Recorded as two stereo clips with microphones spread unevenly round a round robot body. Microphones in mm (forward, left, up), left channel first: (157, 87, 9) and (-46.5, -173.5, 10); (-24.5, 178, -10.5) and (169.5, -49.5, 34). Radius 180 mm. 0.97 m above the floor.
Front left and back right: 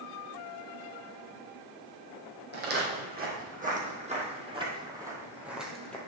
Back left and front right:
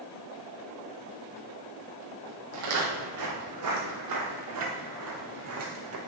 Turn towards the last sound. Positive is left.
turn(degrees=-35)